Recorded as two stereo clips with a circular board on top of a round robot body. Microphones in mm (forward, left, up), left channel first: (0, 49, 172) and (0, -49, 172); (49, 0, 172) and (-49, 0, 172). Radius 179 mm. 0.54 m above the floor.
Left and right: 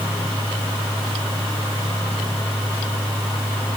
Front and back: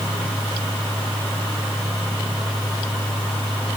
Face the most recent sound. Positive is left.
No sound to turn to.